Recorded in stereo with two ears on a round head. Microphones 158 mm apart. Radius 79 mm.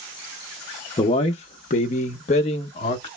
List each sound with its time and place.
1.0 s a man speaking: 25° left (ahead or behind), 0.6 m; by 3.1 s 30° left (ahead or behind), 1.1 m